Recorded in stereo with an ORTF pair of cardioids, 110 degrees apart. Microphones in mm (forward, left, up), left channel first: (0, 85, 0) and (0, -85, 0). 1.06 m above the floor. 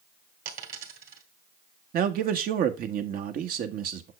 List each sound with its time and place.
0.5 s a dropped coin: 55° right, 2 m
1.9 s a man speaking: 60° right, 1.4 m